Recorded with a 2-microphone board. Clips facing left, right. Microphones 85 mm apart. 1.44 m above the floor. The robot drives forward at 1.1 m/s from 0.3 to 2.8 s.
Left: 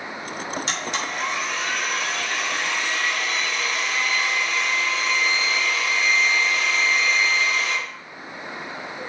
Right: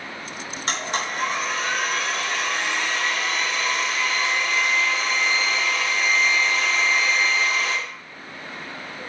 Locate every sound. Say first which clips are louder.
0.7 s a blender: right 1 dB; 45° right (ahead or behind), 3 m; by 7.8 s 25° right (ahead or behind), 5 m